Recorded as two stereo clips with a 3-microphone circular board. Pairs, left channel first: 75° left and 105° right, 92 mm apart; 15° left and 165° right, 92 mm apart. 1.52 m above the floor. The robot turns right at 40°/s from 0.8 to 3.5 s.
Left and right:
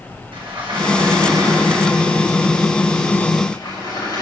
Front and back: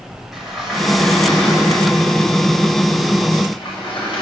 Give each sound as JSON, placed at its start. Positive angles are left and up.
{"t": 0.3, "sound": "a sliding door", "azimuth_deg": -75, "distance_m": 9.0}